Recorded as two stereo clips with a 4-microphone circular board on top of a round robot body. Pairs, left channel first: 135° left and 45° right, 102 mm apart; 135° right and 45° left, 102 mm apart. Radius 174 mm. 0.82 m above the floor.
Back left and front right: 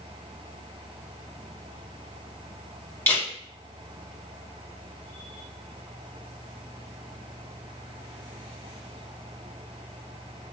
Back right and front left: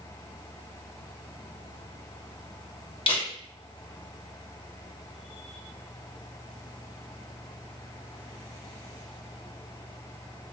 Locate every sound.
3.1 s a camera shutter: 160° right, 1.4 m